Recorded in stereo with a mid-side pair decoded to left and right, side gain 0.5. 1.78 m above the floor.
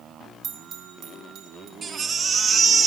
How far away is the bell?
About 1.7 m.